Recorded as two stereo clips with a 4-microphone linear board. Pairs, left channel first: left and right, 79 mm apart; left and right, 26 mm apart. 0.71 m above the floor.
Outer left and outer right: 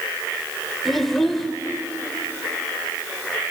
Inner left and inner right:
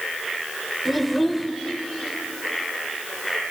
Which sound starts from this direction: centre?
A child speaking, at 0.8 s.